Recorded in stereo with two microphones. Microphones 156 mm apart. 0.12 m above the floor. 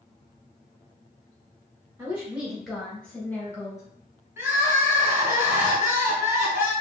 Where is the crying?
15° right (ahead or behind), 1.2 m.